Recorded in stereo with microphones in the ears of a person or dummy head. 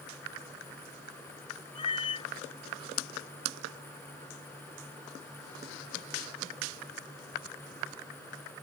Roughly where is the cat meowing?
Left.